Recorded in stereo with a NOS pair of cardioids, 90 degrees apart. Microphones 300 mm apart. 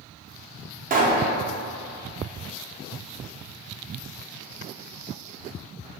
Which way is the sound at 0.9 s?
30° right.